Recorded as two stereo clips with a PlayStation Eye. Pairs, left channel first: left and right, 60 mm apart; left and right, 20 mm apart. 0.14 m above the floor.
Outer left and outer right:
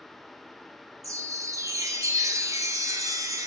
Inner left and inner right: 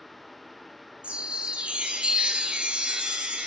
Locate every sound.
1.0 s a chime: 70° right (ahead or behind), 0.6 m